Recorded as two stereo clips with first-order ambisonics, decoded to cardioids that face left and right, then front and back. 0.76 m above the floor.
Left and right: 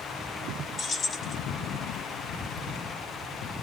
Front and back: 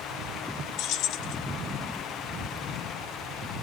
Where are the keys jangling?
25° left, 0.6 m.